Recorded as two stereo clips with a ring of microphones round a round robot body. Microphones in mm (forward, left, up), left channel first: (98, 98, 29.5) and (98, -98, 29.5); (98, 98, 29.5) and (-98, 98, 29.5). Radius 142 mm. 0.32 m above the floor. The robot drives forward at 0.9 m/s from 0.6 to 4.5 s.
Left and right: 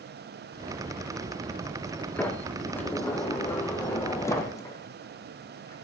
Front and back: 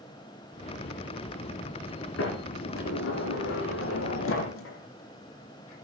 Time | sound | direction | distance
2.2 | a sliding door | 10° left | 5.5 m